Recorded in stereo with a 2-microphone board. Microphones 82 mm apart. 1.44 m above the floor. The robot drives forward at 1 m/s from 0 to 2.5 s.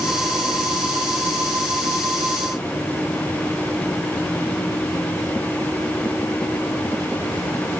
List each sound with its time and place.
Only background noise.